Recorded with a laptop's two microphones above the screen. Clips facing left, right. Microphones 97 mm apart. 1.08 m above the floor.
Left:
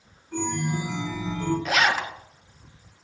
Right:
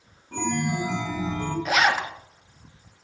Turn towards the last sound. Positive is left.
turn(degrees=-10)  # may be behind; listen again after turning